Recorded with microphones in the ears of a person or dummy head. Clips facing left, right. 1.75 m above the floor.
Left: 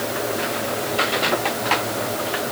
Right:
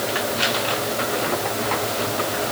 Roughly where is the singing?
I don't hear singing.